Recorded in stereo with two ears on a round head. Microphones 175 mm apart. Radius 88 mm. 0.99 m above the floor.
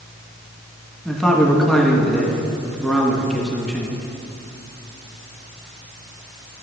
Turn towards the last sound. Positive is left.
turn(degrees=5)  # may be behind; listen again after turning